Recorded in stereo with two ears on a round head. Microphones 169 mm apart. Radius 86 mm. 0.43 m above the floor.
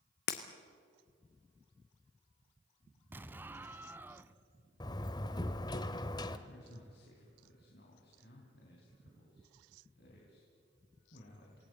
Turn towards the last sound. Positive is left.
turn(degrees=55)  # may be behind; listen again after turning